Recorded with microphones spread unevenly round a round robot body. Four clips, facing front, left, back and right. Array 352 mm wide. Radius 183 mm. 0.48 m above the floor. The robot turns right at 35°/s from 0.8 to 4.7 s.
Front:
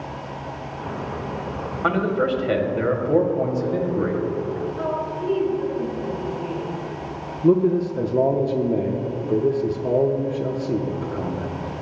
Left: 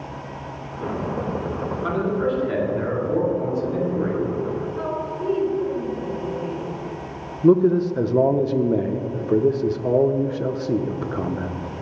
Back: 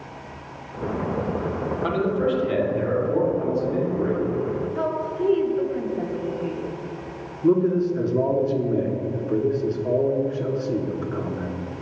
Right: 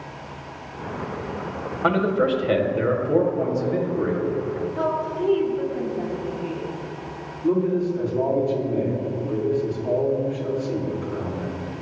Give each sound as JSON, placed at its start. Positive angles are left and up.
{"t": 1.8, "sound": "a man speaking", "azimuth_deg": -70, "distance_m": 2.5}
{"t": 4.8, "sound": "a woman speaking", "azimuth_deg": -160, "distance_m": 3.0}
{"t": 7.4, "sound": "a man speaking", "azimuth_deg": 75, "distance_m": 1.0}